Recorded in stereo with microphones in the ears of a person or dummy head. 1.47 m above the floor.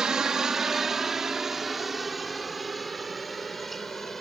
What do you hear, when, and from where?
0.0 s a helicopter: 5° right (ahead or behind); by 4.2 s 5° left (ahead or behind)